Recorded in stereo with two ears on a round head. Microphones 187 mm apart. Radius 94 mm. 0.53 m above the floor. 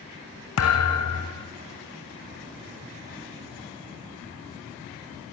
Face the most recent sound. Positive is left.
turn(degrees=80)